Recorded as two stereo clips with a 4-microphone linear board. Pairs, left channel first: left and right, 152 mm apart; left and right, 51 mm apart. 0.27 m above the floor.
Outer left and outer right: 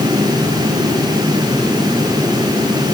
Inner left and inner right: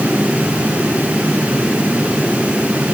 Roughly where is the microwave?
I don't hear a microwave.